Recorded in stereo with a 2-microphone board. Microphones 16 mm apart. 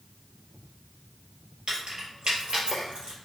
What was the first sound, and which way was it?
Keys jangling, 55° right (ahead or behind).